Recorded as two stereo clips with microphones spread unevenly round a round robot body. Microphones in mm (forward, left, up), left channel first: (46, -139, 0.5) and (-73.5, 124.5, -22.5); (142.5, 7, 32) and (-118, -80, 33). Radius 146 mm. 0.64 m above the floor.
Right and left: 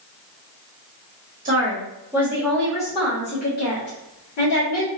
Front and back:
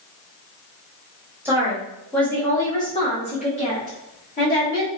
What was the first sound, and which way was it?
A woman speaking, 125° left.